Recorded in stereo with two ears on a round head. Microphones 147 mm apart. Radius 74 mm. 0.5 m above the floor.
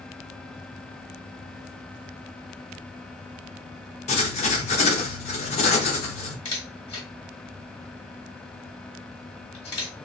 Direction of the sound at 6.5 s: 35° left (ahead or behind).